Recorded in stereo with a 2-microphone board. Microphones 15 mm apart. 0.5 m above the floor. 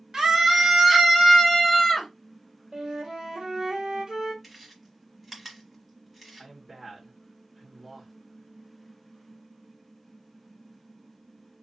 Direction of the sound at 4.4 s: 10° right (ahead or behind).